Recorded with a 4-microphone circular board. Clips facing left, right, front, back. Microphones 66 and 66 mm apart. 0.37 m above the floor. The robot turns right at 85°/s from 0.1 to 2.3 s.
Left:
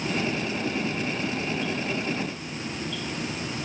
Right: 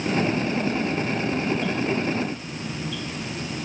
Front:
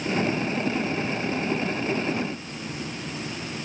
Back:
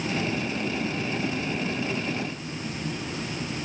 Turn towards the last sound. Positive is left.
No sound to turn to.